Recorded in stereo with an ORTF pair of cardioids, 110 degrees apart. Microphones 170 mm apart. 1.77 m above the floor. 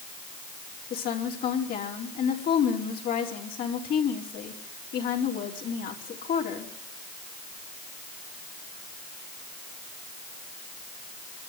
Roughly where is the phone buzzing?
No phone buzzing in this recording.